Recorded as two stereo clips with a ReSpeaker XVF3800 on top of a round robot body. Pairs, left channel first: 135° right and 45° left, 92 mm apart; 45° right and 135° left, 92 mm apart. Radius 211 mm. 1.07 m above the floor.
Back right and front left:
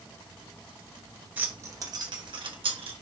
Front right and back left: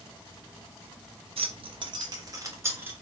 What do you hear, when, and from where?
1.4 s keys jangling: 120° left, 1.1 m; by 2.9 s 70° left, 1.8 m